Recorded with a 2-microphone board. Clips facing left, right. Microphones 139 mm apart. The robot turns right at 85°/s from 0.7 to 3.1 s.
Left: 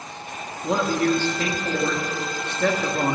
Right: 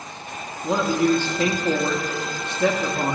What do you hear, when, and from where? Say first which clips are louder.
0.6 s a man speaking: right 2 dB; centre (ahead or behind), 0.7 m; by 3.2 s 10° left (ahead or behind), 0.7 m